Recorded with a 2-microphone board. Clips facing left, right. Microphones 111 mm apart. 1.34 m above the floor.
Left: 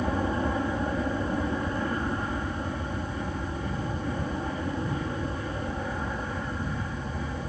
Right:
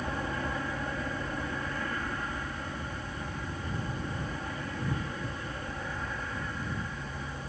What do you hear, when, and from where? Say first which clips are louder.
0.0 s an aircraft: left 7 dB; 25° left (ahead or behind)